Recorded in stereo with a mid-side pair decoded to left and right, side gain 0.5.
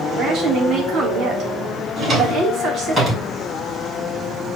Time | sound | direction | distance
0.1 | a woman speaking | 55° right | 3 m
2.0 | a drawer | 40° right | 4 m